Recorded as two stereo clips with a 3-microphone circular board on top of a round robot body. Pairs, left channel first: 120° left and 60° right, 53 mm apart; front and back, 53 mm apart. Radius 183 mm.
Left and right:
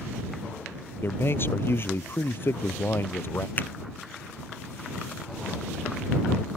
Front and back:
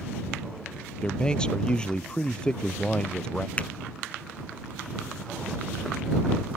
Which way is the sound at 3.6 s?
65° left.